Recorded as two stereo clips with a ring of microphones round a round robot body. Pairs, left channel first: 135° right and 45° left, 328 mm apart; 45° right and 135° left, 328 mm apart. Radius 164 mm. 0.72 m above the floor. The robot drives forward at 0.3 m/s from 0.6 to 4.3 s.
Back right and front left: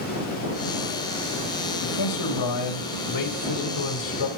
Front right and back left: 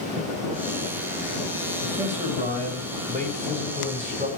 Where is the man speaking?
155° right, 4.5 m; by 4.3 s 160° right, 5 m.